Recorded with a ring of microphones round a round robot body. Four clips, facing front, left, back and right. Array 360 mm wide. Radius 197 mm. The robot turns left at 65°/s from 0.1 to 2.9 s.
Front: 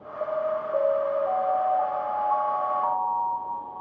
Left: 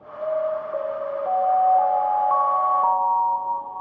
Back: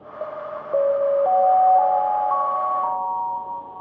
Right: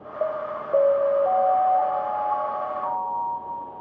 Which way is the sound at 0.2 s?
95° right.